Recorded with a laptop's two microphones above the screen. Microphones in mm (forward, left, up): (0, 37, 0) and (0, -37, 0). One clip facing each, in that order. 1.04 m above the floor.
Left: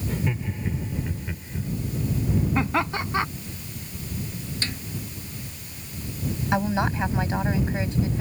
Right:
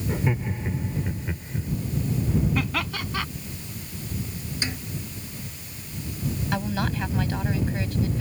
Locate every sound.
0.1 s laughter: 25° right (ahead or behind); by 1.7 s 5° right (ahead or behind)
2.5 s laughter: 25° left (ahead or behind)
4.6 s a snare drum: 15° right (ahead or behind)
6.5 s a woman speaking: 20° left (ahead or behind)